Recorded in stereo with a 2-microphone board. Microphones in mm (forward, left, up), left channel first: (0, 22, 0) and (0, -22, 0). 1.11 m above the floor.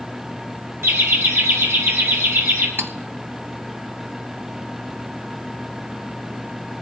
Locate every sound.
0.8 s laughter: 80° right, 2.5 m; by 2.7 s 90° right, 4 m
2.8 s cutlery clinking: 70° right (ahead or behind), 0.7 m